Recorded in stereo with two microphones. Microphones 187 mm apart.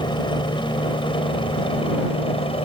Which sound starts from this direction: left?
A helicopter, at 0.0 s.